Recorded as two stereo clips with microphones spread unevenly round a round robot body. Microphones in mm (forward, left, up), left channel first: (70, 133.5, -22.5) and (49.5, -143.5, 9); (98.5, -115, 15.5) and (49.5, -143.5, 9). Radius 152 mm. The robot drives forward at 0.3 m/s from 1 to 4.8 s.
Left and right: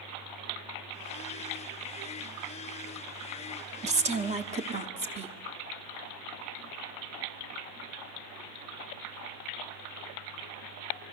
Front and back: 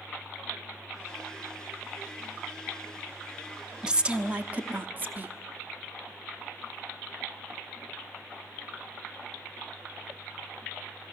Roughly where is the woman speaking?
Behind right.